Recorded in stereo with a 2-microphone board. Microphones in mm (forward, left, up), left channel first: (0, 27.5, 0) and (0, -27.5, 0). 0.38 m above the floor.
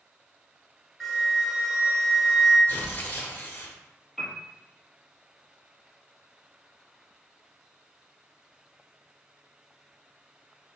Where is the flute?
Centre (ahead or behind), 1.5 m.